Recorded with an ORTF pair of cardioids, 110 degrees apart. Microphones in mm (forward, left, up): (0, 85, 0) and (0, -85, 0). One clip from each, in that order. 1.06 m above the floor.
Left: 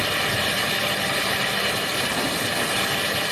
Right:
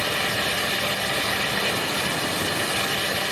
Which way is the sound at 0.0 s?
10° left.